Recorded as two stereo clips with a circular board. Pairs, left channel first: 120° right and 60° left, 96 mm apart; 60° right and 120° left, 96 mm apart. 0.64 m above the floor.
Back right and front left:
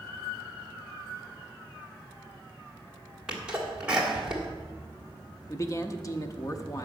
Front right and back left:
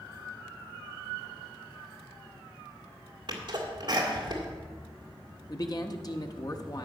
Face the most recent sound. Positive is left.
turn(degrees=-80)